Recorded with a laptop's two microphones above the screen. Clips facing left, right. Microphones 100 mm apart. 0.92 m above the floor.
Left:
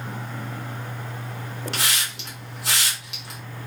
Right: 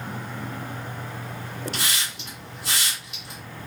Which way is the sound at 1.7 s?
85° left.